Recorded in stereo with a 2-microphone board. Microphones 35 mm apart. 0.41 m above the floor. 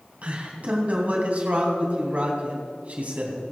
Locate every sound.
0.2 s a man speaking: 45° right (ahead or behind), 3 m